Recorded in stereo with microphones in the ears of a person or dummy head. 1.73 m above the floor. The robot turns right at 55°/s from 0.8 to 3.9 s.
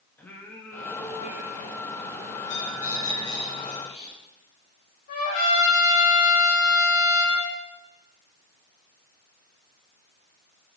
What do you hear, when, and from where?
0.2 s singing: 165° left, 1.3 m; by 3.4 s 55° right, 1.3 m
2.4 s a bird: 65° left, 2 m; by 4.1 s 145° left, 2 m
5.1 s a trumpet: 55° left (ahead or behind), 5.5 m